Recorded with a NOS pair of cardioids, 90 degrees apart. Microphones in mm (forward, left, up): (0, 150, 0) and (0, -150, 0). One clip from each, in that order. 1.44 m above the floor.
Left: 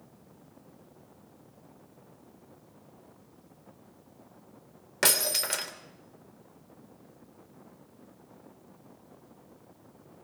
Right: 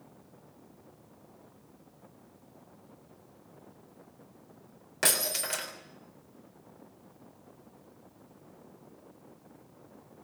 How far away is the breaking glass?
About 3 m.